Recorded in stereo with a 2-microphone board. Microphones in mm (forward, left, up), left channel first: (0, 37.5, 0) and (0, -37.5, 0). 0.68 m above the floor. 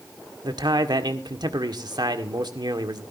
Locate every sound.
0.4 s a man speaking: 65° right (ahead or behind), 1.8 m